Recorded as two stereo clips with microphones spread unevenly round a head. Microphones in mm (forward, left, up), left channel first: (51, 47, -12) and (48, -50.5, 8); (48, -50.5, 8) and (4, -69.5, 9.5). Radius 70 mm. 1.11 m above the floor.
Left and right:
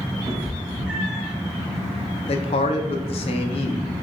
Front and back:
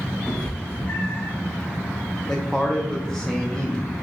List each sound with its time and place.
0.3 s a cat meowing: 55° right, 1.1 m; by 1.3 s 10° right, 1.3 m
2.3 s a man speaking: 105° left, 0.5 m